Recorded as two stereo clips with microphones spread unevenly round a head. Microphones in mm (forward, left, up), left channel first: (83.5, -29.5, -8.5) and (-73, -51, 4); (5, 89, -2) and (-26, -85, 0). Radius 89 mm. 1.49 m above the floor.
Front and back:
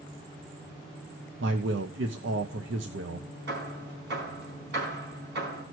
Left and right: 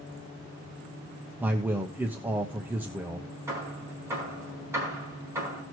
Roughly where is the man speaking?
Behind.